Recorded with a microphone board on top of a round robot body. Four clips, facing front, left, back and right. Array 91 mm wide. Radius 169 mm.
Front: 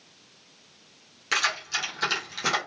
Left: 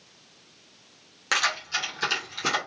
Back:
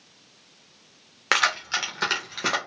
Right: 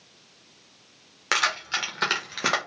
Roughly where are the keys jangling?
Behind.